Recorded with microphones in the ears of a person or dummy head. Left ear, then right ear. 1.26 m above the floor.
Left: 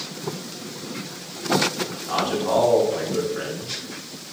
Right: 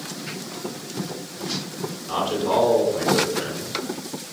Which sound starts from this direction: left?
A man speaking, at 2.0 s.